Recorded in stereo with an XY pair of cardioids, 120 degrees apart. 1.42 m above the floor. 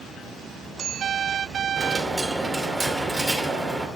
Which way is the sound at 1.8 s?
5° right.